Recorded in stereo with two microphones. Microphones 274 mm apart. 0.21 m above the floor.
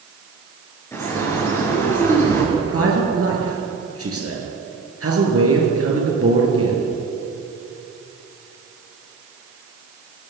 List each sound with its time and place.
0.9 s a bird: 10° left (ahead or behind), 3.5 m
2.5 s a man speaking: 55° right (ahead or behind), 3.5 m